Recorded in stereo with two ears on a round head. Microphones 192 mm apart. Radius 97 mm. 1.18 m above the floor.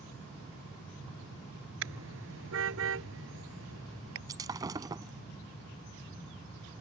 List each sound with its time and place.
1.8 s a car horn: 60° right (ahead or behind)
4.3 s breaking glass: 15° right (ahead or behind)